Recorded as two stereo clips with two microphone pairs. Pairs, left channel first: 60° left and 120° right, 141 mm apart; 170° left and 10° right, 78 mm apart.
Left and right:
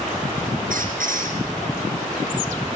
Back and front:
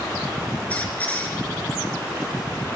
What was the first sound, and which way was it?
A squeak, 120° right.